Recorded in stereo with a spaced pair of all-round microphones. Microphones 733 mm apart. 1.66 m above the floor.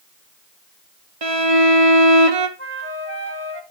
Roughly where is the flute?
Centre.